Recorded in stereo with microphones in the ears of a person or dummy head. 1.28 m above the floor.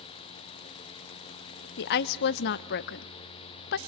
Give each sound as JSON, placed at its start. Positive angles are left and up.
{"t": 1.8, "sound": "a woman speaking", "side_deg": 60, "distance_m": 0.5}